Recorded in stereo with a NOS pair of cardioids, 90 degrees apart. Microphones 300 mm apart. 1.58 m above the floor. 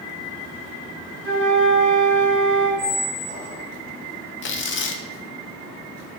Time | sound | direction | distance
1.2 | a flute | 15° left | 2.5 m
2.8 | a squeak | 20° right | 1.6 m
4.4 | tearing paper | 40° left | 0.6 m